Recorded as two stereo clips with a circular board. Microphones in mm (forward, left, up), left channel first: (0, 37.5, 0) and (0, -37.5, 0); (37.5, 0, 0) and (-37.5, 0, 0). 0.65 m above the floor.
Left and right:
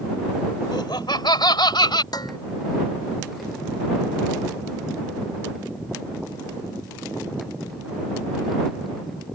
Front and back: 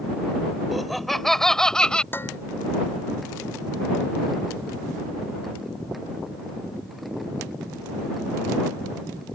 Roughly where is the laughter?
Left.